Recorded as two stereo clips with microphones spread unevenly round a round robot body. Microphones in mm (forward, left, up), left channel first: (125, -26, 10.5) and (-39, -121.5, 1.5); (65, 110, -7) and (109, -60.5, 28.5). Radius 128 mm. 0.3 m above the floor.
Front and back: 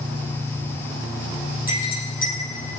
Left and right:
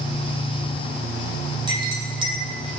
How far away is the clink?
About 5.5 m.